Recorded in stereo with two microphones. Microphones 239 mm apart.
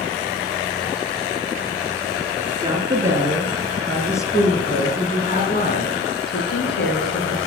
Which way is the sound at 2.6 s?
20° right (ahead or behind).